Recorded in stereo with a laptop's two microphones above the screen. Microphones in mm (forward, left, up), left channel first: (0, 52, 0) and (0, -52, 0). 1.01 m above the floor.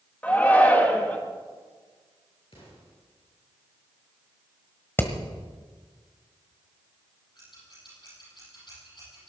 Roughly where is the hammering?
Left.